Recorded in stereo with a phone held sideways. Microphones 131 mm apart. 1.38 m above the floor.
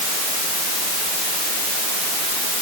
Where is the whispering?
No whispering in this recording.